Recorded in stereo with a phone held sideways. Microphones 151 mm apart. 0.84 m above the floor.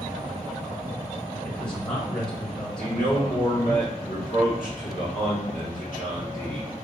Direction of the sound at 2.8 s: 70° left (ahead or behind).